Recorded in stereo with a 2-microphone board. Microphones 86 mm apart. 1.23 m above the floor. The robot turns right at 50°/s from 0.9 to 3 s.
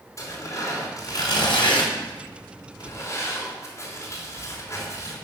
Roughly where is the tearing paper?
Left.